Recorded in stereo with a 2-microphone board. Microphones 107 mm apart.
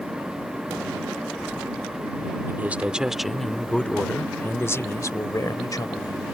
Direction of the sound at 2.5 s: 20° right (ahead or behind).